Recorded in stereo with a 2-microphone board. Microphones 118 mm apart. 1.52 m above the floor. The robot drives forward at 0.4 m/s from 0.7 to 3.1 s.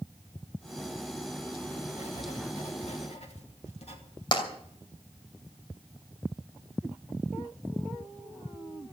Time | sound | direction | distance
1.9 | writing | 75° left (ahead or behind) | 2.5 m
4.3 | tapping | 45° left (ahead or behind) | 2.5 m